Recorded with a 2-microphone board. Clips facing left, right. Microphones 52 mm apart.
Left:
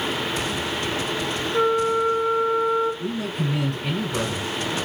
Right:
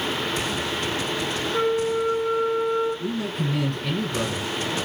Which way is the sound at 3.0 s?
20° left (ahead or behind).